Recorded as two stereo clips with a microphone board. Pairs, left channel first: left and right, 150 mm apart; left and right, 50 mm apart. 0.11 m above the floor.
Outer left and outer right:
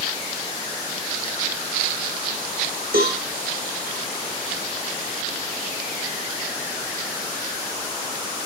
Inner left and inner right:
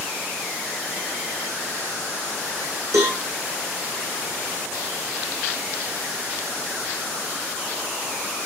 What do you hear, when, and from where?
2.9 s a cowbell: 80° right, 2.5 m